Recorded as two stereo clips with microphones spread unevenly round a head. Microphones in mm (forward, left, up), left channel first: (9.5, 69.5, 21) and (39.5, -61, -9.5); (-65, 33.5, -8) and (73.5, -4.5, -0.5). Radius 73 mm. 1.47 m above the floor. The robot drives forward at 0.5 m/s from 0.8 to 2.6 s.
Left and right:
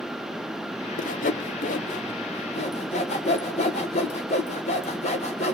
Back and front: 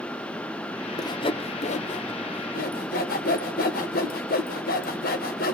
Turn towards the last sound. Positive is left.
turn(degrees=145)